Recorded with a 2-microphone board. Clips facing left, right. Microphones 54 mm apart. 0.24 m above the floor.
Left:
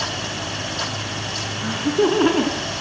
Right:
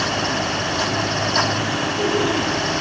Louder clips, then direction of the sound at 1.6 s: Left 2 dB; 35° left (ahead or behind).